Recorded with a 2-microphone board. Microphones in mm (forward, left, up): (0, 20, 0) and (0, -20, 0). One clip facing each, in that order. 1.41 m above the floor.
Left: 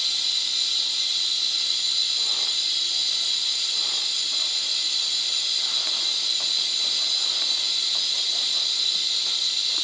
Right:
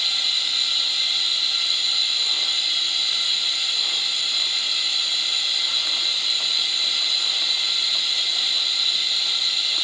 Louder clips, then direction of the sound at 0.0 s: Right 3 dB; 40° right (ahead or behind).